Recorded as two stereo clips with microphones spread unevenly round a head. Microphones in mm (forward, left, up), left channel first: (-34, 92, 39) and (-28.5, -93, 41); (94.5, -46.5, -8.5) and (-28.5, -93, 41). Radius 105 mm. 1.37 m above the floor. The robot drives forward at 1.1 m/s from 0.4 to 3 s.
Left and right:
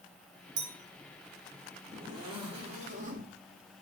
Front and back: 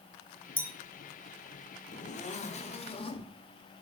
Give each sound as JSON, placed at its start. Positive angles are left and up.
{"t": 0.6, "sound": "a clink", "azimuth_deg": -65, "distance_m": 1.9}
{"t": 1.9, "sound": "a zipper", "azimuth_deg": -15, "distance_m": 2.0}